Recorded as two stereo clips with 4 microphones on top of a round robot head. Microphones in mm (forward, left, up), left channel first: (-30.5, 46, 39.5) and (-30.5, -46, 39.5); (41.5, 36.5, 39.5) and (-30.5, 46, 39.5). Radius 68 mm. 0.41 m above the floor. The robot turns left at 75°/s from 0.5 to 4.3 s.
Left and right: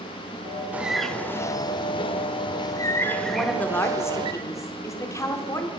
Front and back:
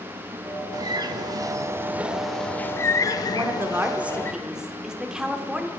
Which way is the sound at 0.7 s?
160° right.